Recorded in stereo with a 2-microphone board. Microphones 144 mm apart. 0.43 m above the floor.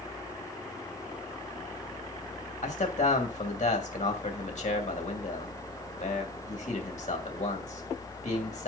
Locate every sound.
2.6 s a man speaking: 65° left (ahead or behind), 2.5 m